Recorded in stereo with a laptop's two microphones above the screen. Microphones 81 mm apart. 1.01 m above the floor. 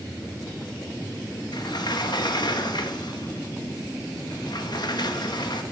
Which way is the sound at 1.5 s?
60° left (ahead or behind).